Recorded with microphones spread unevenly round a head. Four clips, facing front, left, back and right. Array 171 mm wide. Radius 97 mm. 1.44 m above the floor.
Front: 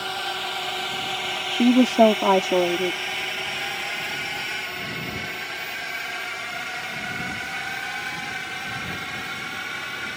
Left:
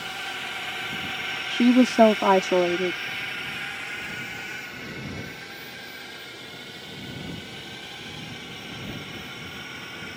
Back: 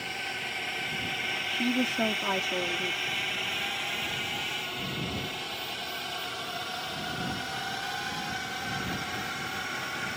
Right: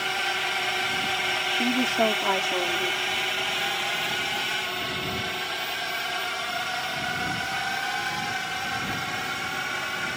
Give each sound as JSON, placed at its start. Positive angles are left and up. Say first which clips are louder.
{"t": 0.0, "sound": "a drone", "louder": "right 6 dB, front 8 dB", "azimuth_deg": -35}
{"t": 1.5, "sound": "a woman speaking", "louder": "left 10 dB, front 12 dB", "azimuth_deg": 40}